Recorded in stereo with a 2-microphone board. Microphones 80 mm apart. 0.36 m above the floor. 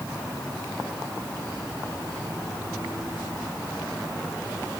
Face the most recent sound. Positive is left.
No sound to turn to.